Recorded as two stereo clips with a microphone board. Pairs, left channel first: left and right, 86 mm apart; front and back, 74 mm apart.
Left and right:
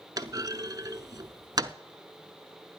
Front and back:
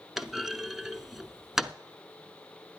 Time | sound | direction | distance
0.2 | a clunk | 95° right | 0.6 m